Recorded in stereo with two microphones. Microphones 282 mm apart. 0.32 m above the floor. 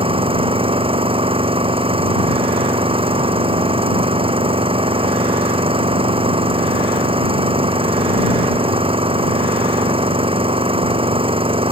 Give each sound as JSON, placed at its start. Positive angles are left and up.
{"t": 0.0, "sound": "an engine running", "side_deg": -20}